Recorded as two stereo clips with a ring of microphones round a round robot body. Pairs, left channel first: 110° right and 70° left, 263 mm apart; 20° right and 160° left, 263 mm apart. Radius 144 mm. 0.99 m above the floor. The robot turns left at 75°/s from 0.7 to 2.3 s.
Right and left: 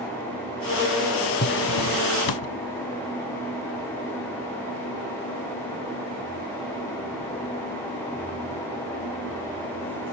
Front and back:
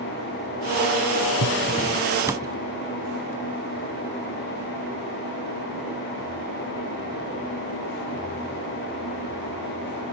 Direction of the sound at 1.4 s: 55° right.